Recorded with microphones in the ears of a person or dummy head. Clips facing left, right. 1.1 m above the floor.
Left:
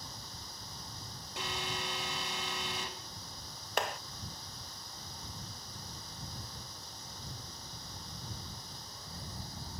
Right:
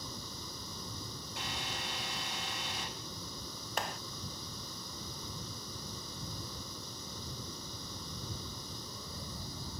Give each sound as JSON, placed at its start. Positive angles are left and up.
{"t": 0.0, "sound": "running water", "side_deg": -85}
{"t": 1.4, "sound": "an alarm", "side_deg": 70}
{"t": 3.8, "sound": "a clap", "side_deg": 50}